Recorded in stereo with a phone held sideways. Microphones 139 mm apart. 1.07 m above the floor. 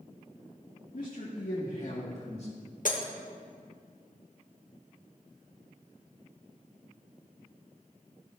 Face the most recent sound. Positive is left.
turn(degrees=70)  # may be behind; listen again after turning